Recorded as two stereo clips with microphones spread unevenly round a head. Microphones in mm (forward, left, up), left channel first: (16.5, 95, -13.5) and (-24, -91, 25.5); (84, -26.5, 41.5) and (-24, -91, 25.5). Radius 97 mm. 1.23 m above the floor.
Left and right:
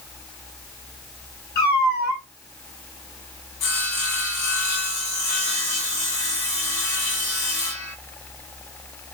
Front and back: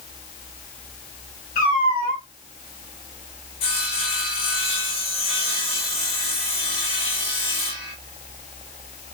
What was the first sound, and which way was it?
A cat meowing, 40° left.